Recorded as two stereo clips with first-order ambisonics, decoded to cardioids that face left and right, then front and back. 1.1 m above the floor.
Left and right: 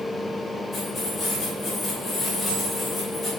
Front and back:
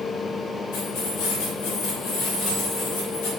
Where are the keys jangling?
10° left, 3.5 m.